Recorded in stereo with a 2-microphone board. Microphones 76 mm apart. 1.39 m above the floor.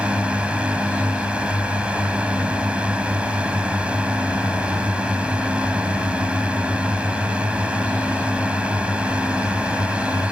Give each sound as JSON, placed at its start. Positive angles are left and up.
{"t": 0.0, "sound": "a drone", "side_deg": -15}